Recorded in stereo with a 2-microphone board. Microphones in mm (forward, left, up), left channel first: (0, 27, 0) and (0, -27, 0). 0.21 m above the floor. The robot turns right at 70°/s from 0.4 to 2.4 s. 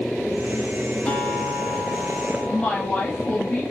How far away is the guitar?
About 1.5 m.